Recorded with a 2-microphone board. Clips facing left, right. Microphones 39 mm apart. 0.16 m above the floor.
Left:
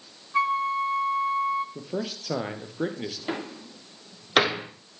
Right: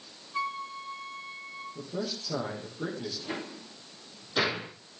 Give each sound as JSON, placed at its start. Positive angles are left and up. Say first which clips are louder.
{"t": 0.3, "sound": "a flute", "louder": "left 10 dB", "side_deg": 40, "distance_m": 2.0}
{"t": 1.8, "sound": "a man speaking", "louder": "left 3 dB", "side_deg": 60, "distance_m": 4.5}
{"t": 3.3, "sound": "a door slam", "louder": "left 5 dB", "side_deg": 80, "distance_m": 4.0}